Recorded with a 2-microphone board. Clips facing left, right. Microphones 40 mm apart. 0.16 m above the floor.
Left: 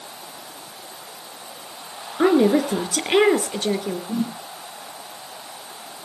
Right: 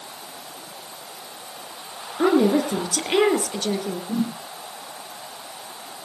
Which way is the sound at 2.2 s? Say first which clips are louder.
Left 2 dB; 20° left (ahead or behind).